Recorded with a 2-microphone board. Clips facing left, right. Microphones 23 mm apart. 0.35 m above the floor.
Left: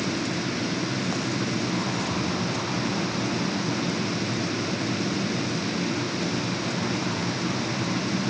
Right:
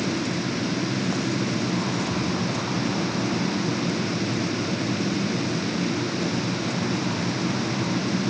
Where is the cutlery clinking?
I don't hear cutlery clinking.